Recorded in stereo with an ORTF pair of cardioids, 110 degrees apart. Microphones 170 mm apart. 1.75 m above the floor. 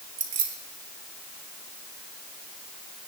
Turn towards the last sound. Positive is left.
turn(degrees=-50)